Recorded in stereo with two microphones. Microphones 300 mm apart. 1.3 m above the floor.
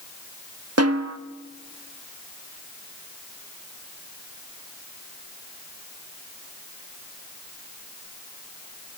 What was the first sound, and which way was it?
A snare drum, 55° right (ahead or behind).